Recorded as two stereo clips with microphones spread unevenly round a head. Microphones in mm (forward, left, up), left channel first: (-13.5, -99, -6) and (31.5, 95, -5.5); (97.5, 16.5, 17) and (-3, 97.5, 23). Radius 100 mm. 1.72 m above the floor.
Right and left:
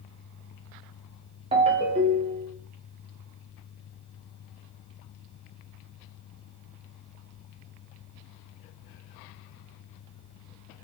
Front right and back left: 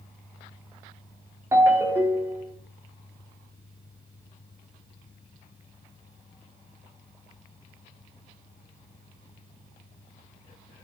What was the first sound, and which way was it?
A ringtone, 100° left.